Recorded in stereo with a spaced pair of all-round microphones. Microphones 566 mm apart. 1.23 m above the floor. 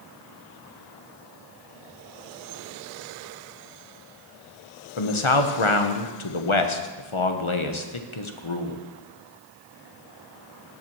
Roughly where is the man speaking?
Left.